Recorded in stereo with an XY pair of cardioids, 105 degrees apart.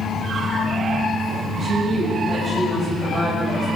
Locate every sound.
1.6 s a woman speaking: 30° right, 6.5 m